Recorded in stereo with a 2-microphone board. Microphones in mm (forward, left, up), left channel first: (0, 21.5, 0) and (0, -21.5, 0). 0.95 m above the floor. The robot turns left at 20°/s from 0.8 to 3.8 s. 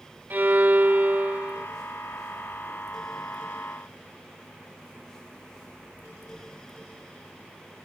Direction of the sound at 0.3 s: 50° right (ahead or behind).